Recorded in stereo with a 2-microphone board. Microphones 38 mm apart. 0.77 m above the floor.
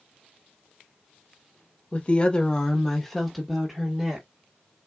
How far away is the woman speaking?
About 0.7 m.